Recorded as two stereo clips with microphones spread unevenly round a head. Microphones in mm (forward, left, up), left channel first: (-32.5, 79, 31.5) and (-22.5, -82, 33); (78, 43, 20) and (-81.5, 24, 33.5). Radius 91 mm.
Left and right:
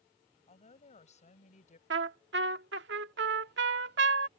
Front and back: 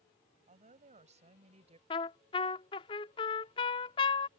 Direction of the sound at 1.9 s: 60° right.